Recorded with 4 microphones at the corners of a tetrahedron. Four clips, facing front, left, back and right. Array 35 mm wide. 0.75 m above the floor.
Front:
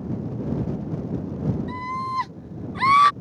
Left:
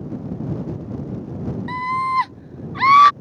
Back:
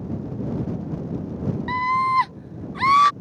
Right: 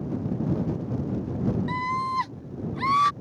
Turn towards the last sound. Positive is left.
turn(degrees=70)